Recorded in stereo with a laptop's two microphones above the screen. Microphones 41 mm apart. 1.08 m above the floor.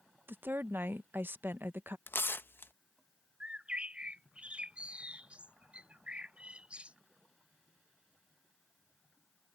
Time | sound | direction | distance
0.3 | a woman speaking | 55° right (ahead or behind) | ?
2.1 | tearing paper | 60° left (ahead or behind) | ?
3.4 | a bird | 30° right (ahead or behind) | ?